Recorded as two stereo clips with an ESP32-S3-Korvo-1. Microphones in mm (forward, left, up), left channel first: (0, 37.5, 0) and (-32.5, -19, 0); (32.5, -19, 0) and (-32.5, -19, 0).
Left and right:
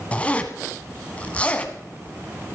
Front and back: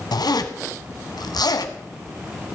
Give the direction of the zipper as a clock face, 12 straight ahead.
12 o'clock.